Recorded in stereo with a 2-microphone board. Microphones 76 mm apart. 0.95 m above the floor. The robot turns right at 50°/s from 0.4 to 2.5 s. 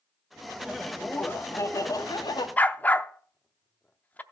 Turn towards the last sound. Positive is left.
turn(degrees=20)  # may be behind; listen again after turning